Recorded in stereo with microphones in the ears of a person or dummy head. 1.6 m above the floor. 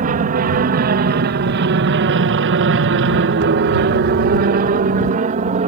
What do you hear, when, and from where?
0.0 s an aircraft: 45° right (ahead or behind); by 5.7 s 35° right (ahead or behind)